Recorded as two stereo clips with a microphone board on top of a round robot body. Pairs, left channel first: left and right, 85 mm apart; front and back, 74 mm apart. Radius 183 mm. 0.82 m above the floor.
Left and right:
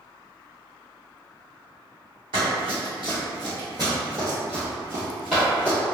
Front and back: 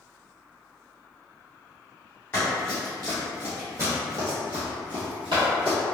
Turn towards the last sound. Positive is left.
turn(degrees=175)